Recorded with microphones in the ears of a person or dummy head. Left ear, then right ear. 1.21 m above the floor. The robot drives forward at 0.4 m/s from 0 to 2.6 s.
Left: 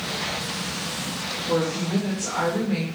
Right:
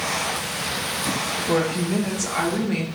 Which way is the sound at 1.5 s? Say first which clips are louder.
Even; 30° right (ahead or behind).